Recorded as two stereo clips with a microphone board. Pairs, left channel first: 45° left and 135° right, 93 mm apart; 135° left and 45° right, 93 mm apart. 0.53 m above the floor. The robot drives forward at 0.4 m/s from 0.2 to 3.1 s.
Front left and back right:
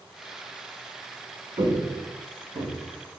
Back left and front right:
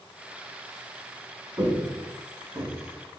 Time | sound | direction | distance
1.6 | footsteps | 105° right | 2.0 m